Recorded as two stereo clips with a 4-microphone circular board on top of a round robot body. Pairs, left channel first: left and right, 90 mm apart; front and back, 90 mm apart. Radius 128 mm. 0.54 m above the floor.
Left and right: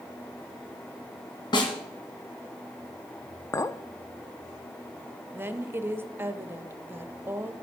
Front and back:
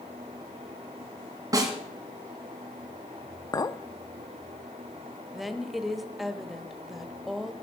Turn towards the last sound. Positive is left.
turn(degrees=-95)